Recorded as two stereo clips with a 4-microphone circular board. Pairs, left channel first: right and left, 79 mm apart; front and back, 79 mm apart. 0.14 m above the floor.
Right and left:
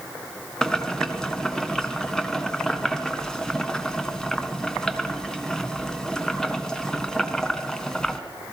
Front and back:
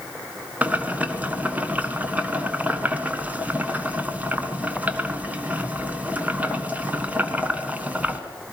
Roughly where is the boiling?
Behind right.